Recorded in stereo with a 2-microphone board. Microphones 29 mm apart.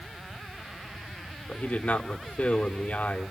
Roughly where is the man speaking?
Left.